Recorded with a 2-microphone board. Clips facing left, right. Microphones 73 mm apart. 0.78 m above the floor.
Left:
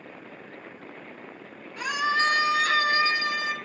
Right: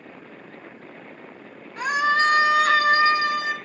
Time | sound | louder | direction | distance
1.8 | a scream | right 5 dB | 40° right (ahead or behind) | 1.5 m